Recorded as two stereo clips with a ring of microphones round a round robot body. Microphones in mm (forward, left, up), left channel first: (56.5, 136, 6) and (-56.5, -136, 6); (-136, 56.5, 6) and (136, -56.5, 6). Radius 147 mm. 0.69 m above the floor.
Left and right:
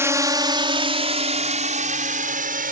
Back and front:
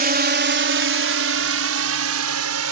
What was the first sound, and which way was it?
A drone, 40° right.